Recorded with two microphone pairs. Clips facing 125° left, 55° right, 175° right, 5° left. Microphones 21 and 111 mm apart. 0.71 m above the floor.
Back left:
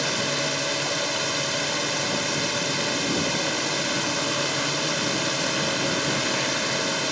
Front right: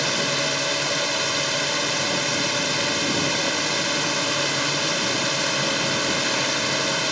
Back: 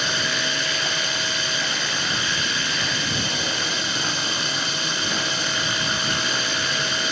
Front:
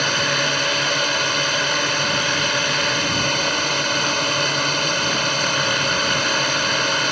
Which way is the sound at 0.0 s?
20° left.